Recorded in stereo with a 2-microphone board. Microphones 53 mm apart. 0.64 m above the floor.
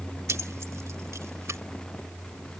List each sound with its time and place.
0.3 s keys jangling: 60° right (ahead or behind); by 1.6 s 65° right (ahead or behind)